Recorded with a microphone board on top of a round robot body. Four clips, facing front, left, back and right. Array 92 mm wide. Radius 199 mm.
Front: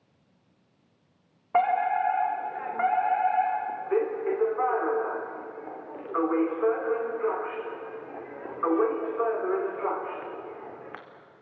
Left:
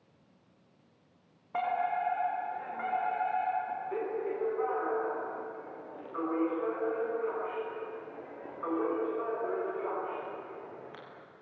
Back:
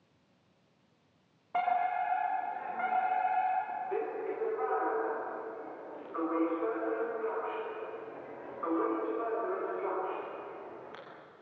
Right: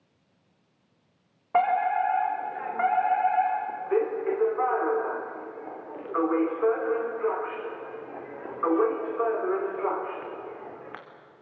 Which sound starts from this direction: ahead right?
A fire alarm, at 1.5 s.